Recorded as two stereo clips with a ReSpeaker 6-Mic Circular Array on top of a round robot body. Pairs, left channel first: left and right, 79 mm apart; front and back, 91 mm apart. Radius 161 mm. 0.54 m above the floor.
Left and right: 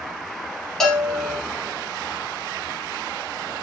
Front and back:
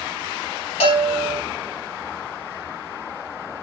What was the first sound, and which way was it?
A bell, 5° left.